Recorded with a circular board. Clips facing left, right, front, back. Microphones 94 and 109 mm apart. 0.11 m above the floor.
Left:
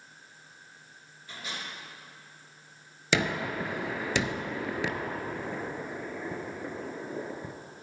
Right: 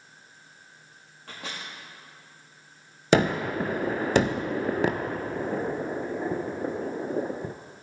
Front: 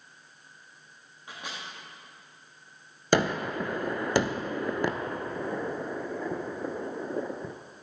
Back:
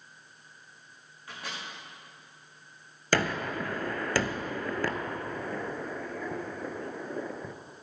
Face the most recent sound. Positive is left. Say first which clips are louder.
# right 7 dB, front 3 dB
turn(degrees=-65)